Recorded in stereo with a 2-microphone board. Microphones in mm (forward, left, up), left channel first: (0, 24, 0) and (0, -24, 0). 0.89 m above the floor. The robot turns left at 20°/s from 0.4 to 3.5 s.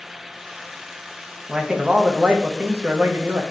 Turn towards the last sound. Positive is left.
turn(degrees=-55)